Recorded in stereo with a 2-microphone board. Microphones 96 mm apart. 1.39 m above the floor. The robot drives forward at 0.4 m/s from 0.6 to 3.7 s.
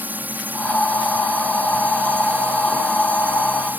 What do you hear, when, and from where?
0.0 s a drone: 20° right (ahead or behind)